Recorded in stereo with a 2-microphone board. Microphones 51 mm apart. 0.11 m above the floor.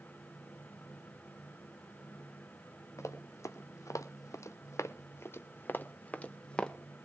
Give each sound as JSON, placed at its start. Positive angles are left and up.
{"t": 3.0, "sound": "running footsteps", "side_deg": 70, "distance_m": 2.0}